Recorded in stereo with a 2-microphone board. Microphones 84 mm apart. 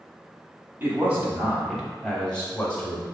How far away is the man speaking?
About 1.2 m.